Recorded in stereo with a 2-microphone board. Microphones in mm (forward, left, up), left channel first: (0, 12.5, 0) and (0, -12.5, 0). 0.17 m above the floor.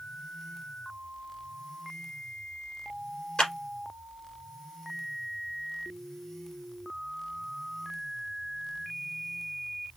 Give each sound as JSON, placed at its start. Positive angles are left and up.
{"t": 3.4, "sound": "a clap", "side_deg": 40, "distance_m": 3.0}